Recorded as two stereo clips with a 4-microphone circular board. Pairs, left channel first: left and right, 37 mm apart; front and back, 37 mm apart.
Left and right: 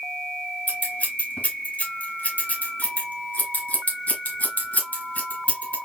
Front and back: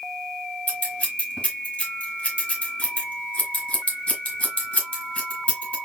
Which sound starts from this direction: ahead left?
Scissors, at 0.7 s.